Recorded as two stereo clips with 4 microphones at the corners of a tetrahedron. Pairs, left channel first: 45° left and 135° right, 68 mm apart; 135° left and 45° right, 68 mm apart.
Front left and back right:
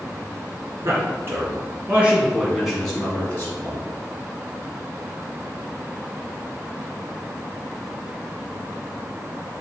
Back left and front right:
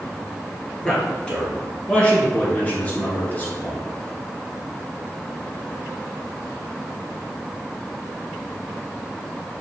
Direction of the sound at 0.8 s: 150° right.